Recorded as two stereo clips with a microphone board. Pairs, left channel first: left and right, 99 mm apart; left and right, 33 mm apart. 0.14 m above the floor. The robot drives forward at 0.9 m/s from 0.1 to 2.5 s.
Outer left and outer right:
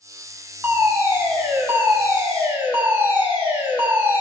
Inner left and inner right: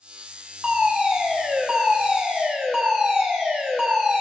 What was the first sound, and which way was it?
A fire alarm, 20° right (ahead or behind).